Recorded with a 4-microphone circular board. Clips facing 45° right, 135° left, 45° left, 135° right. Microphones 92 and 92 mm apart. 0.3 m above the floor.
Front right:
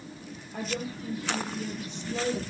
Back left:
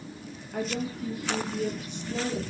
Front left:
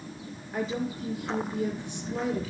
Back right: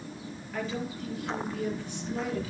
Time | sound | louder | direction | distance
0.5 | a woman speaking | back left 3 dB, front left 3 dB | 115° left | 6 m